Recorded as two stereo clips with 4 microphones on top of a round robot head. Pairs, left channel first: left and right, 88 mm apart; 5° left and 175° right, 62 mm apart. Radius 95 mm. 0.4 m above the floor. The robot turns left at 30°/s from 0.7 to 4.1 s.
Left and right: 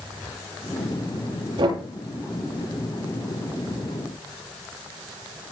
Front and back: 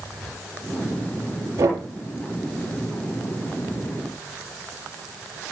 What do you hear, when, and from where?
1.6 s knocking: 125° right, 7.5 m; by 1.8 s 130° right, 7.5 m